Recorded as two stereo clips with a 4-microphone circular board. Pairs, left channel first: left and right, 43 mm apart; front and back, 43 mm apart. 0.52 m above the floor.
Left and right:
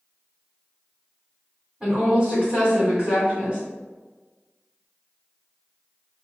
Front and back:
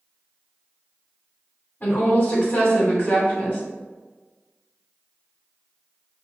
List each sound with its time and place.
1.8 s a woman speaking: 30° right, 1.8 m